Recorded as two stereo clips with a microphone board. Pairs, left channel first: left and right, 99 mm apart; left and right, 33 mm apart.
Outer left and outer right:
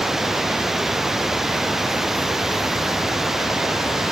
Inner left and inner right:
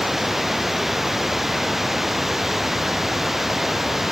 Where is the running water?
5° right (ahead or behind).